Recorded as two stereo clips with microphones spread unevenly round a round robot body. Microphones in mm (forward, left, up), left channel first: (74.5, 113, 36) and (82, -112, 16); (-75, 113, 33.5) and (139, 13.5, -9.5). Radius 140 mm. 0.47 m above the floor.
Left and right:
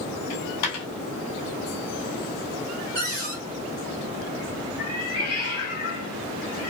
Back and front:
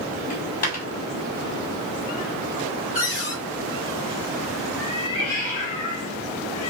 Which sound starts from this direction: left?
A dropped coin, at 0.3 s.